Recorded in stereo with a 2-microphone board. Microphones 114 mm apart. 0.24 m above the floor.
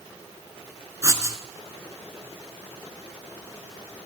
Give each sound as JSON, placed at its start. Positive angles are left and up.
{"t": 1.0, "sound": "writing", "side_deg": -30, "distance_m": 0.8}